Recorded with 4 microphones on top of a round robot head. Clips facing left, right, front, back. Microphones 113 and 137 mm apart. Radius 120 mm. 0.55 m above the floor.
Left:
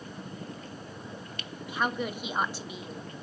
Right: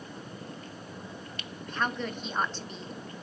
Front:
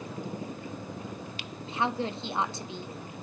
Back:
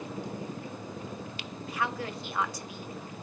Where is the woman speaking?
20° left, 0.7 m.